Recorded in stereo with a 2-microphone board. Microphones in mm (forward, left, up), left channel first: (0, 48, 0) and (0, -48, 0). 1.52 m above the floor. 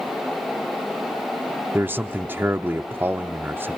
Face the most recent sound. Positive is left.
turn(degrees=-20)  # may be behind; listen again after turning